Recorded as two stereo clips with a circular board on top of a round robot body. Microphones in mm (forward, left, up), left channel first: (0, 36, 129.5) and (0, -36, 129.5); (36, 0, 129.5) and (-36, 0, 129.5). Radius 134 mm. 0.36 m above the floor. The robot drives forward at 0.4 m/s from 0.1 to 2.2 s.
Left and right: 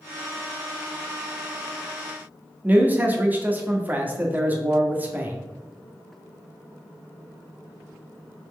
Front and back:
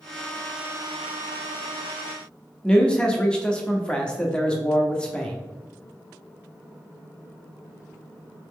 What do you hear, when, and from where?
2.6 s a man speaking: 60° right, 1.1 m